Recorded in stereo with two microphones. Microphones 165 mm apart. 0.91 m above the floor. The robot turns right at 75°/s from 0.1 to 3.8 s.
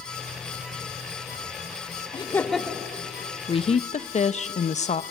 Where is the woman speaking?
30° left (ahead or behind), 0.6 m; by 5.0 s 45° left (ahead or behind), 0.6 m.